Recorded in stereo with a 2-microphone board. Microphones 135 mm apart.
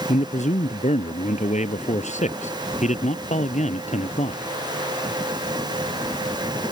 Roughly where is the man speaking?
Left.